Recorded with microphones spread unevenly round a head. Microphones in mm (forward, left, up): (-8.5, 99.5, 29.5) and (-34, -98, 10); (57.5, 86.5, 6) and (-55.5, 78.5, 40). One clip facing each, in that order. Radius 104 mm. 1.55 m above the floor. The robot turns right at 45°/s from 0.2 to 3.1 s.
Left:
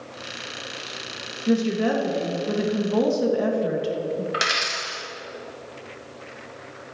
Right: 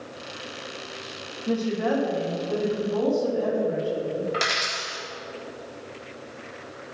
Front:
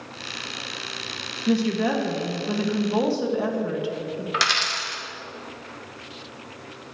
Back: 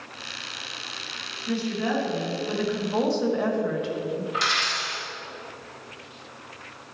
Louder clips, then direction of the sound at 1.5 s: Left 3 dB, front 5 dB; 10° left.